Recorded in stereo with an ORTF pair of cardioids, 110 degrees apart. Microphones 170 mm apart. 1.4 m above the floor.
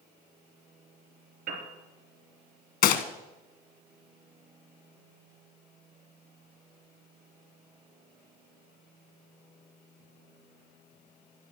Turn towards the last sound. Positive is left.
turn(degrees=70)